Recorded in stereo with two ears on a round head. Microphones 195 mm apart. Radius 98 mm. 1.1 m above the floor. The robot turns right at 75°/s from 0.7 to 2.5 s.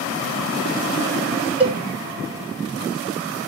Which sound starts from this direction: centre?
A cowbell, at 1.6 s.